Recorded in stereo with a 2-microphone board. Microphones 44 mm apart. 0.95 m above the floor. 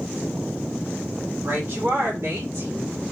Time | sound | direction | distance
1.4 | a woman speaking | 60° right (ahead or behind) | 3 m